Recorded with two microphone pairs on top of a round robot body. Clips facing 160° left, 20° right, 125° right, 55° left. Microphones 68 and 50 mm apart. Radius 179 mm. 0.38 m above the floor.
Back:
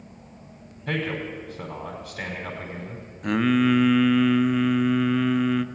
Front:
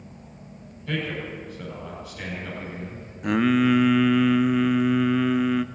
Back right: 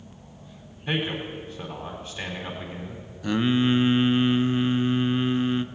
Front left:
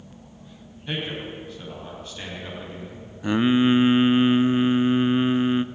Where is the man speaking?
170° left, 4.5 m.